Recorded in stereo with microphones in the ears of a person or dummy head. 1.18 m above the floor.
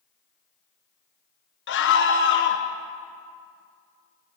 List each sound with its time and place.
1.7 s a scream: 55° left (ahead or behind), 0.9 m